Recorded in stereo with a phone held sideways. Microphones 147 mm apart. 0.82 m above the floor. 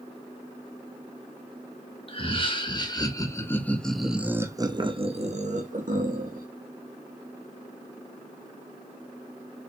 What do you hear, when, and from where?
2.1 s laughter: 40° left (ahead or behind), 1.6 m; by 6.5 s 70° right (ahead or behind), 1.3 m